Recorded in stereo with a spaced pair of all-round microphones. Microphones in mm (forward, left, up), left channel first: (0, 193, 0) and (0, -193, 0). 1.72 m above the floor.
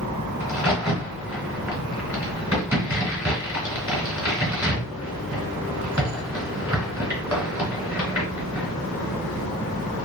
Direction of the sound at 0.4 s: 5° right (ahead or behind).